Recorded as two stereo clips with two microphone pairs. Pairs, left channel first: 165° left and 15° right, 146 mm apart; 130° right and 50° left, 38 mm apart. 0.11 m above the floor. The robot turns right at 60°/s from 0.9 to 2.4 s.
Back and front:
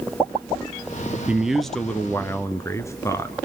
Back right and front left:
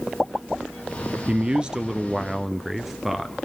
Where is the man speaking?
55° left, 1.1 m; by 3.4 s 120° left, 1.1 m.